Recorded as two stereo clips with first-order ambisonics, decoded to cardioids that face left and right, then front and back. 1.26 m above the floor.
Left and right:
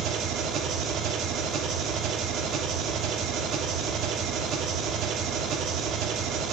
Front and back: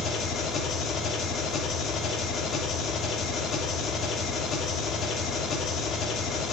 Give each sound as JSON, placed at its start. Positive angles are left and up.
{"t": 0.0, "sound": "an engine running", "azimuth_deg": -50, "distance_m": 1.2}